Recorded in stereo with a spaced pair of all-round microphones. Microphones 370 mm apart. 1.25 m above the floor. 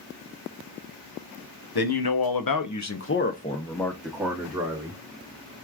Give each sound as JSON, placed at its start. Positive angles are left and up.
{"t": 1.8, "sound": "a man speaking", "side_deg": 70, "distance_m": 0.9}